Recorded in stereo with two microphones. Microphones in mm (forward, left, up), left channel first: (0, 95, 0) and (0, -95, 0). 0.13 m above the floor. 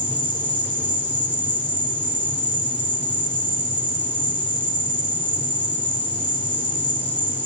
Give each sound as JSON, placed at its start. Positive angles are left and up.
{"t": 0.0, "sound": "an insect", "side_deg": 25, "distance_m": 1.9}